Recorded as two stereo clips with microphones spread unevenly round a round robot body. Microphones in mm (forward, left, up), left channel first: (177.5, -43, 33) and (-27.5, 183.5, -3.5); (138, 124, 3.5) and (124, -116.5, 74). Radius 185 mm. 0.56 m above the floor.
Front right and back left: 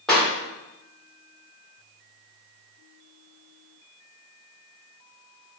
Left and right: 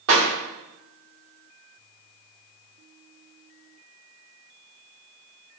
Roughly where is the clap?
Behind right.